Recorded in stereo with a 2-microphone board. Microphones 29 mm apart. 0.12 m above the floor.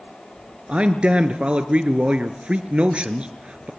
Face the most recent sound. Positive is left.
turn(degrees=-45)  # may be behind; listen again after turning